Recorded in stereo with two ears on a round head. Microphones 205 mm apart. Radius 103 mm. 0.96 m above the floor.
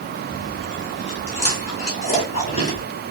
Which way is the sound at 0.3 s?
30° left (ahead or behind).